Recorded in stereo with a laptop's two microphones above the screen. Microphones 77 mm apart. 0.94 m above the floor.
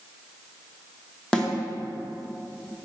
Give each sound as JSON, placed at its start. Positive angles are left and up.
{"t": 1.3, "sound": "a snare drum", "side_deg": 10, "distance_m": 1.0}